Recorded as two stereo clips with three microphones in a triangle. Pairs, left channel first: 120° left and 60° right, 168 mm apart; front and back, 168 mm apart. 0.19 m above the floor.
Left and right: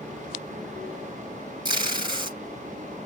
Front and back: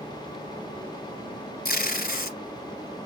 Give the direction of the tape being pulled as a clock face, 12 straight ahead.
12 o'clock.